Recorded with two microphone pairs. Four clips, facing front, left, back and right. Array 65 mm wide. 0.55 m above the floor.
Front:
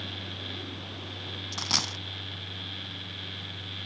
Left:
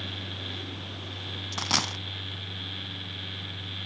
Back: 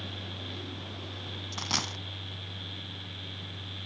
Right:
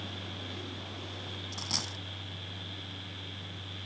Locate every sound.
1.5 s a dropped coin: 70° left, 0.5 m